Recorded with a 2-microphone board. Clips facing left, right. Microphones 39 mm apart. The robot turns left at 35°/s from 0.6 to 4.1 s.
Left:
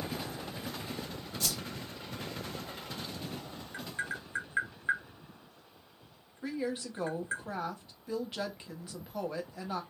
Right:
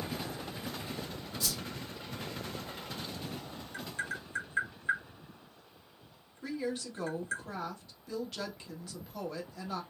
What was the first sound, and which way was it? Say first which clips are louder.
A whoosh: left 1 dB; 65° left (ahead or behind).